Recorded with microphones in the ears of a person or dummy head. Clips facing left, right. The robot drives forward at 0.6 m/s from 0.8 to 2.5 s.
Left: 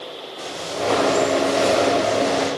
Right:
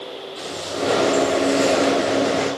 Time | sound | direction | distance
0.4 | footsteps | 35° right (ahead or behind) | 3.5 m